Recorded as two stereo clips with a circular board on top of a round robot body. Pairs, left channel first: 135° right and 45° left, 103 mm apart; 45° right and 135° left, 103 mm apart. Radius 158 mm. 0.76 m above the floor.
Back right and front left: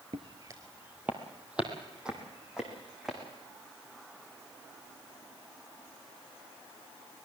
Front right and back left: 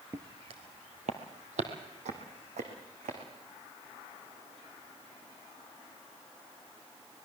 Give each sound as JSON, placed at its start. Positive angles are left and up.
{"t": 0.1, "sound": "footsteps", "azimuth_deg": 75, "distance_m": 0.8}